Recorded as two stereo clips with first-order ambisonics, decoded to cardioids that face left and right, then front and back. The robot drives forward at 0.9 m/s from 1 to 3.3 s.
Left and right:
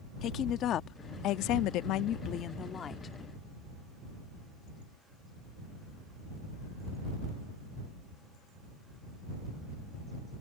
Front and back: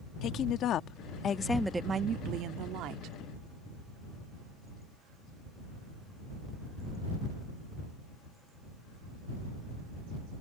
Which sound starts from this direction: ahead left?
A woman speaking, at 0.2 s.